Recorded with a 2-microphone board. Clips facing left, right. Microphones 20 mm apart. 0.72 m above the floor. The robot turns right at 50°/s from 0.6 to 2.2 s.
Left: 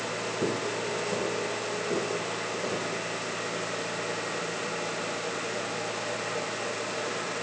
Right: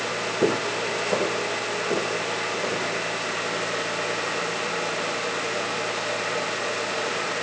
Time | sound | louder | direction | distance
0.4 | footsteps | right 7 dB | 70° right (ahead or behind) | 1.8 m